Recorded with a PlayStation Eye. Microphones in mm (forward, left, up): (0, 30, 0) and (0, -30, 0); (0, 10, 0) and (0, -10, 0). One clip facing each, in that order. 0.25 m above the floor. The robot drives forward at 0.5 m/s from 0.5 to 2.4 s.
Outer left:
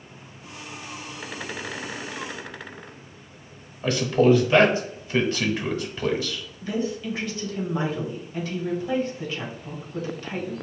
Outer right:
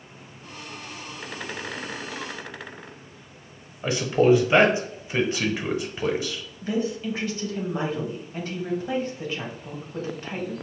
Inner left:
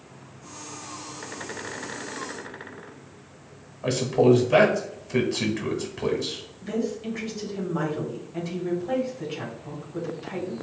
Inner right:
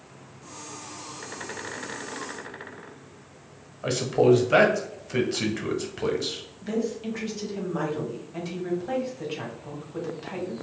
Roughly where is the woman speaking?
Right.